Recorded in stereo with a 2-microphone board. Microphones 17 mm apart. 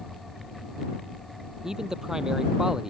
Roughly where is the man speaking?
Right.